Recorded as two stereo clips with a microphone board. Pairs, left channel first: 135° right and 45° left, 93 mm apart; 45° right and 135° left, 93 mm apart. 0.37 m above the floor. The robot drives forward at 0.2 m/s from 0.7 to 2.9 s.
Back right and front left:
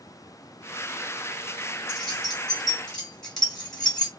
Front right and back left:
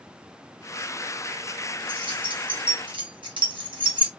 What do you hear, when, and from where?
1.9 s keys jangling: 135° left, 1.6 m; by 4.1 s 140° left, 1.7 m